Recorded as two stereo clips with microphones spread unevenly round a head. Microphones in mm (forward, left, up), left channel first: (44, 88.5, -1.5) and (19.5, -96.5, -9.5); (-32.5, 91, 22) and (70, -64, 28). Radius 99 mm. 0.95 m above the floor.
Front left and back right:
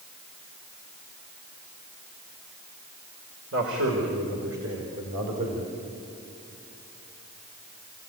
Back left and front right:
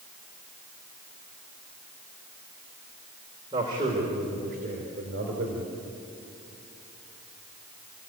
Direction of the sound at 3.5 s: 125° right.